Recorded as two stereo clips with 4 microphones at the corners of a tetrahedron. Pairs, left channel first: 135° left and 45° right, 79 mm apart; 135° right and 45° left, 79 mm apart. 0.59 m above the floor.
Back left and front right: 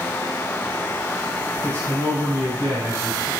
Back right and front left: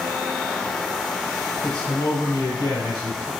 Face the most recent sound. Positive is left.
turn(degrees=-95)